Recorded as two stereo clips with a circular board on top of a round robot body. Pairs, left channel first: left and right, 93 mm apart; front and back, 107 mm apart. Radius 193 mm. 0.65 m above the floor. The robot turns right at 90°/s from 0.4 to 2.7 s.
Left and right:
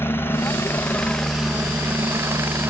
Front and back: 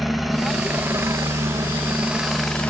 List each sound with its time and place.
0.0 s a helicopter: 95° left; by 2.7 s 60° right